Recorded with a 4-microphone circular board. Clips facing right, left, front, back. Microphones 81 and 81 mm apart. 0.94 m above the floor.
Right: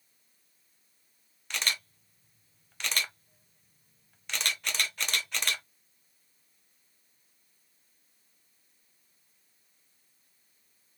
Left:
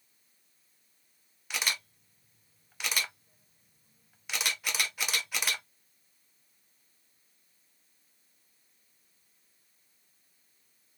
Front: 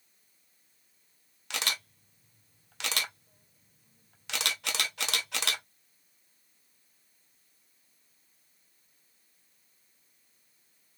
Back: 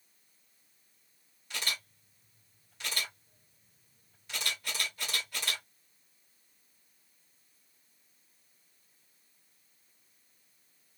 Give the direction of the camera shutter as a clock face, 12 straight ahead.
12 o'clock.